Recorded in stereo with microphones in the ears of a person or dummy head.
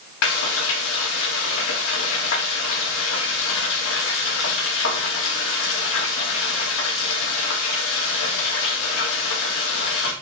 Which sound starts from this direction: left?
Frying, at 0.2 s.